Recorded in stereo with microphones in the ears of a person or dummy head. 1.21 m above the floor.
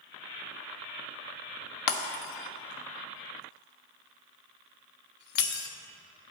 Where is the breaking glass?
55° left (ahead or behind), 0.5 m.